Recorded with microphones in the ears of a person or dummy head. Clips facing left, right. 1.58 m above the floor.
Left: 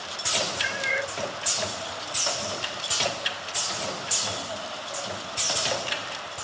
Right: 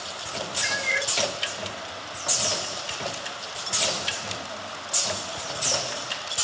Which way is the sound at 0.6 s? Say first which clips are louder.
Left 1 dB; centre (ahead or behind).